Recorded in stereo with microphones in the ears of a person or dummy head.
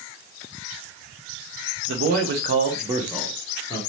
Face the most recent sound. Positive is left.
turn(degrees=20)  # may be behind; listen again after turning